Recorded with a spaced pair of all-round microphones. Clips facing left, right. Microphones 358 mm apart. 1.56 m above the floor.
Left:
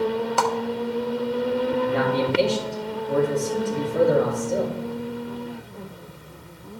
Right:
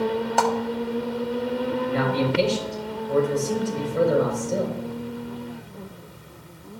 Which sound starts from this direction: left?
A man speaking, at 1.9 s.